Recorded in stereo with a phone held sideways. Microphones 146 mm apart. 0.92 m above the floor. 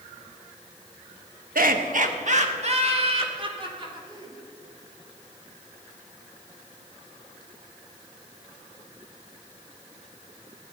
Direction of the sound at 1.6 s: 75° right (ahead or behind).